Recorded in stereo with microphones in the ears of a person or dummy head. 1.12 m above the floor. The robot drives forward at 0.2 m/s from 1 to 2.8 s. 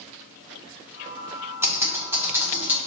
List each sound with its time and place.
1.6 s typing on a keyboard: 15° right (ahead or behind), 0.7 m; by 2.8 s 10° right (ahead or behind), 0.9 m